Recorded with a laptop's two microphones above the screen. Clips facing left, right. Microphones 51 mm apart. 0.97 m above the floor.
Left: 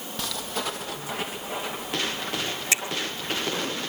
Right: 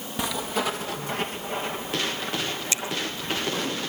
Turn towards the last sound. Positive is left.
turn(degrees=80)